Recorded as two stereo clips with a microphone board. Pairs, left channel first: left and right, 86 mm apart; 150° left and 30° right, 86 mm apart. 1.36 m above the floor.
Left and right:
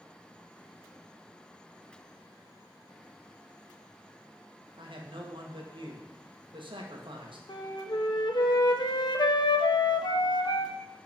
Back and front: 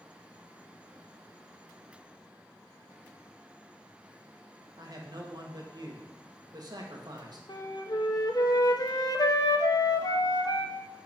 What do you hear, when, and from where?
4.8 s a man speaking: 70° right, 1.7 m
7.5 s a flute: 115° left, 1.0 m